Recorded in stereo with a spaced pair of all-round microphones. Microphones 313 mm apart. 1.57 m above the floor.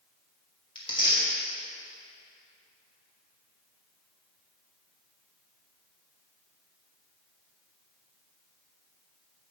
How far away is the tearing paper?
About 2.5 m.